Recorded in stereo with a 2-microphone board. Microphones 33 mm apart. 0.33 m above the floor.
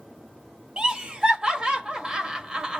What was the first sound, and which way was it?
Laughter, 30° right (ahead or behind).